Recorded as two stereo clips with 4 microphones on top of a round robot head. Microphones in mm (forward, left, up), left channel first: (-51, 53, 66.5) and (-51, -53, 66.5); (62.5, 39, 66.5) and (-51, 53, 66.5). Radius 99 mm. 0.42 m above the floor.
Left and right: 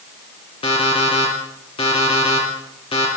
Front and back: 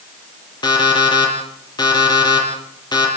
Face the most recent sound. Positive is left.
turn(degrees=45)